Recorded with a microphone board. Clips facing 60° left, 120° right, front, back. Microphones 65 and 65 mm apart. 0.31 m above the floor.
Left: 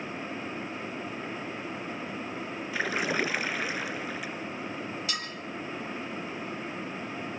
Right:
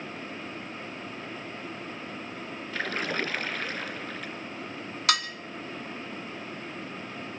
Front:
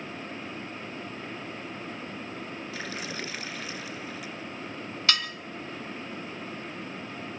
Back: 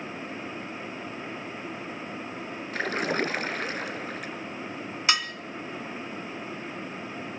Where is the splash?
140° left, 0.8 m.